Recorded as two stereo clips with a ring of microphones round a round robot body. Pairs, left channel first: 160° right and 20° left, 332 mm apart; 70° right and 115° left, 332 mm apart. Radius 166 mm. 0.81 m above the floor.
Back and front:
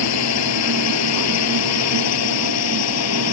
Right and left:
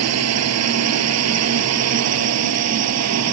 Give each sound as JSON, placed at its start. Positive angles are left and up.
{"t": 0.0, "sound": "a drone", "azimuth_deg": 160}